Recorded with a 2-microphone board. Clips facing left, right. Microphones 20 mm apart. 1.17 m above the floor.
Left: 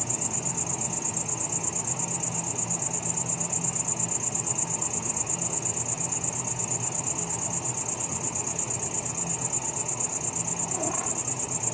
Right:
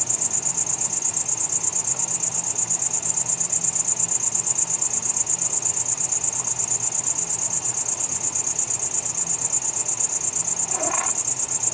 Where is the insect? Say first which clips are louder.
Right 3 dB; 55° right (ahead or behind).